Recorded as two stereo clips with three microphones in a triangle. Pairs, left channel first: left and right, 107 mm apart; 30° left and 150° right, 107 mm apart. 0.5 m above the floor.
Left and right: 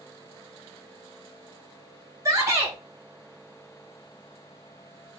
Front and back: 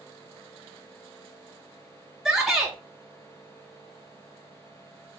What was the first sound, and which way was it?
A shout, 70° right.